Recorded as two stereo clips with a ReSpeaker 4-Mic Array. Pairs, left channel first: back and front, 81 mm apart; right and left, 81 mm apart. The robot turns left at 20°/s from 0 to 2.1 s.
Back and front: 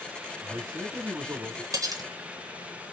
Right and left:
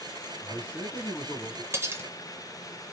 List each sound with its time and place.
0.4 s a man speaking: 45° right, 1.8 m; by 1.6 s 65° right, 1.8 m
1.7 s cutlery clinking: 35° left, 0.6 m; by 2.1 s 30° left, 0.6 m